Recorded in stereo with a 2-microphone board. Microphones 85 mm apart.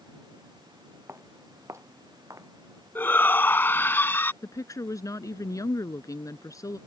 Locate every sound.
1.1 s footsteps: 35° right (ahead or behind); by 2.5 s 40° right (ahead or behind)
3.0 s a shout: 25° left (ahead or behind)
4.4 s a woman speaking: 40° left (ahead or behind)